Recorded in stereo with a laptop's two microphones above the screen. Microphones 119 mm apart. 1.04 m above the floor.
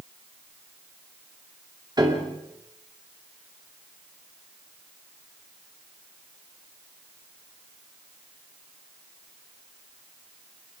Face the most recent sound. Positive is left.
turn(degrees=-35)  # may be behind; listen again after turning